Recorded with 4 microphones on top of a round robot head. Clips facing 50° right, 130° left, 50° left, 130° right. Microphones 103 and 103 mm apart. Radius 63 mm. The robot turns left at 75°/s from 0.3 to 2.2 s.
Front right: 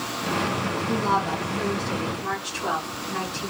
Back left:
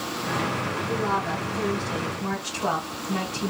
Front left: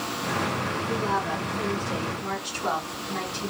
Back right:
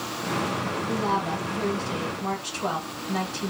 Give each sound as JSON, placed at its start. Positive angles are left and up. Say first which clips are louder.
{"t": 0.9, "sound": "a woman speaking", "louder": "front right 3 dB, back right 1 dB", "azimuth_deg": -70, "distance_m": 1.9}